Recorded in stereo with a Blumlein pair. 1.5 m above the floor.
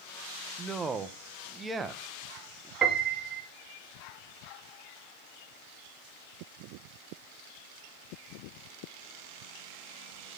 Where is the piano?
25° right, 1.3 m.